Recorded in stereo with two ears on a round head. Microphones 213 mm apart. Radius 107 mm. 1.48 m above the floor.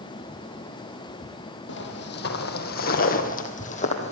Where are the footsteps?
50° left (ahead or behind), 2.5 m; by 4.1 s 30° left (ahead or behind), 2.5 m.